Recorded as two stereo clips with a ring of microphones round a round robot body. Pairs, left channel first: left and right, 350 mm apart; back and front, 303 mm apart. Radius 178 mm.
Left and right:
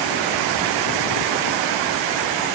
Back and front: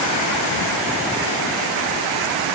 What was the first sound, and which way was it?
Only background noise.